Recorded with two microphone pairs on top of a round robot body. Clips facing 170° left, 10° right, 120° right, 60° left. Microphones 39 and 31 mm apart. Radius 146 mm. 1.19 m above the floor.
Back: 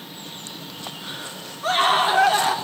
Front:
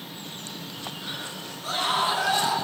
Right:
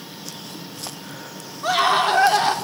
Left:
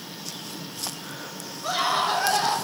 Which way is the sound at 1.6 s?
155° right.